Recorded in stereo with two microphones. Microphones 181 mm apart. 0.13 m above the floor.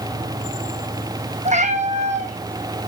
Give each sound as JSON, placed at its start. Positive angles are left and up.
{"t": 1.4, "sound": "a cat meowing", "side_deg": -40, "distance_m": 1.8}